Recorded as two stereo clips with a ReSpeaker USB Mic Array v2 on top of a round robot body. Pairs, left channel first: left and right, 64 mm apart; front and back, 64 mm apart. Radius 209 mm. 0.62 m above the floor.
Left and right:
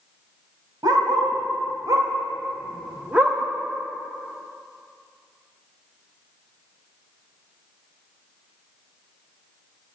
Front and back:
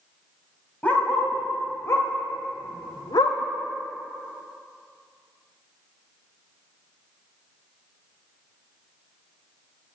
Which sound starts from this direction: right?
A dog barking, at 0.8 s.